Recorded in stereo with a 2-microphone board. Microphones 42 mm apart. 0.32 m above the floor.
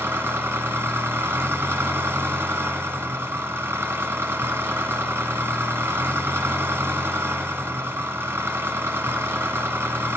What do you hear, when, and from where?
0.0 s an engine running: 75° right (ahead or behind), 1.2 m